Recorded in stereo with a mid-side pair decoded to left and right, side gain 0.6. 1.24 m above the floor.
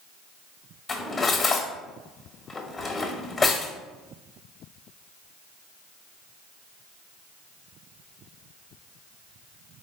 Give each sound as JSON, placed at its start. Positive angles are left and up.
{"t": 0.9, "sound": "cutlery clinking", "azimuth_deg": 30, "distance_m": 1.1}